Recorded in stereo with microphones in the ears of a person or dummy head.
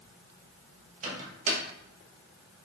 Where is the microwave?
45° right (ahead or behind), 1.2 m.